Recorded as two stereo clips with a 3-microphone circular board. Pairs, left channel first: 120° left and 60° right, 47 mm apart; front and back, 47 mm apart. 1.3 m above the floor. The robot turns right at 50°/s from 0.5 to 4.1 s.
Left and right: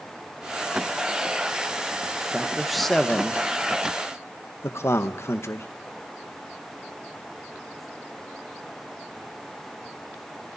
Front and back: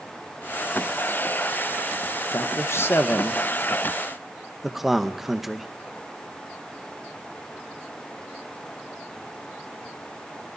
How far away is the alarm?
I don't hear an alarm.